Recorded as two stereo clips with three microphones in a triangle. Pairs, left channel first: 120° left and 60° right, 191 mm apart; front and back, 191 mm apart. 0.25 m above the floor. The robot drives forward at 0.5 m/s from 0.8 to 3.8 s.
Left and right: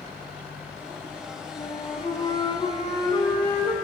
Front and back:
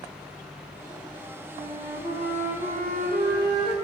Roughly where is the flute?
Behind.